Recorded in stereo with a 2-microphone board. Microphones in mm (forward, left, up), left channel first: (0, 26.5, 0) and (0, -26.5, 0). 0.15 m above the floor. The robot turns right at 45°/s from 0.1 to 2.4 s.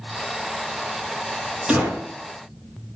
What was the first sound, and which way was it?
A gunshot, 15° right (ahead or behind).